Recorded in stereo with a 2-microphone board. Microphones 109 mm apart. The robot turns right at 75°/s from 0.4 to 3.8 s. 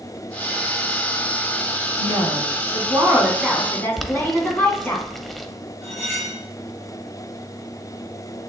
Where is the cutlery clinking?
25° left (ahead or behind), 4 m.